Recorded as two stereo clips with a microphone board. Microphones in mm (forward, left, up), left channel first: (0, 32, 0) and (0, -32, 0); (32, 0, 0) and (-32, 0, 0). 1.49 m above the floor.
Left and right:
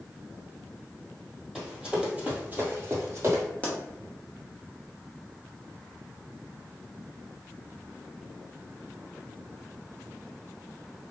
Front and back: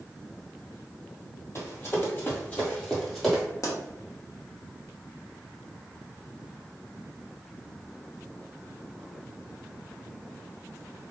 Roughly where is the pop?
Ahead left.